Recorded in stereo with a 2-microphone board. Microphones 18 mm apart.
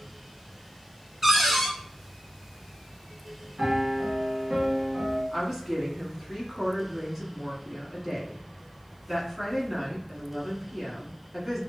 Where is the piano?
45° right (ahead or behind), 1.2 m.